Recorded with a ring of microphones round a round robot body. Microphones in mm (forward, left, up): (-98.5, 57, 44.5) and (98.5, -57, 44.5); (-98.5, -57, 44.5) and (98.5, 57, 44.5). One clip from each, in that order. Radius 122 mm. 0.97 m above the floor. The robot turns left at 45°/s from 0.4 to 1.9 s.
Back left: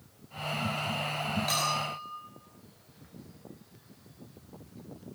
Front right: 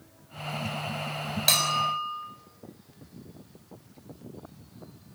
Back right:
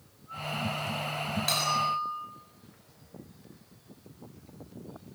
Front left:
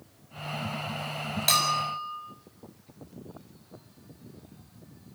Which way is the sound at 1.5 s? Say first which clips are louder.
Front right 8 dB, front left 3 dB; 35° right.